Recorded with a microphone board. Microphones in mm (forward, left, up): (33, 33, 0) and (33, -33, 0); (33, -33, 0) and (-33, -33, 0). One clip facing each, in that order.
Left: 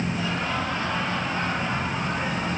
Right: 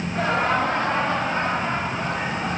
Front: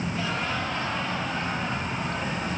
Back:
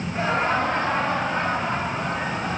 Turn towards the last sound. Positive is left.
turn(degrees=-145)